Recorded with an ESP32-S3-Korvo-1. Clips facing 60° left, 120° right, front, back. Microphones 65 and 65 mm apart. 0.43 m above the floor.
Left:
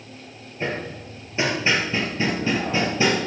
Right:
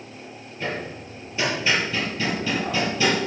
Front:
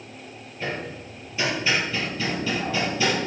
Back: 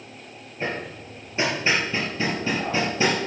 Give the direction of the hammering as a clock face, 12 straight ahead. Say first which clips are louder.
Left 2 dB, back 1 dB; 8 o'clock.